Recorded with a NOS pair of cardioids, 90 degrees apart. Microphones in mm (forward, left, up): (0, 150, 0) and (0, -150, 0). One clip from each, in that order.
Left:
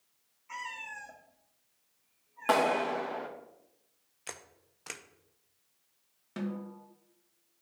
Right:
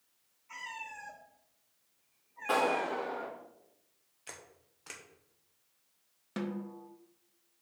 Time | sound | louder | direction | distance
0.5 | a cat meowing | left 3 dB | 35° left | 1.9 m
2.5 | a clap | left 3 dB | 70° left | 1.9 m
4.3 | a camera shutter | left 4 dB | 30° left | 0.8 m
6.4 | a snare drum | right 1 dB | 20° right | 1.1 m